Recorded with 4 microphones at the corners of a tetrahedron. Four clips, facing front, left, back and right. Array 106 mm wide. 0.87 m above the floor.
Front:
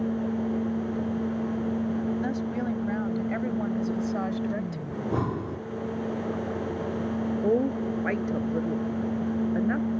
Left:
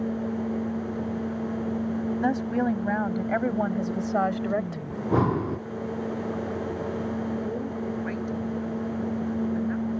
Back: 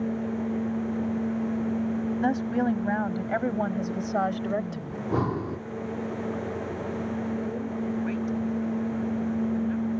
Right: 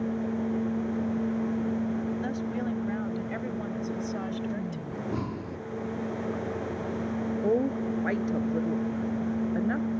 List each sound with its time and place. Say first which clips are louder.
2.2 s a woman speaking: left 6 dB, back 4 dB; 130° left; by 4.8 s 120° left
4.9 s breathing: left 12 dB, back 2 dB; 100° left
7.4 s a woman speaking: right 4 dB, front 6 dB; 35° right